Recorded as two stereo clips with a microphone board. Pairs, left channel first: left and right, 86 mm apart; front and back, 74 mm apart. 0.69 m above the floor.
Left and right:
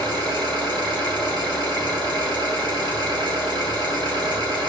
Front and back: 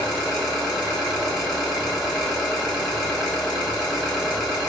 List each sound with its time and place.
0.0 s an engine running: 95° right, 1.3 m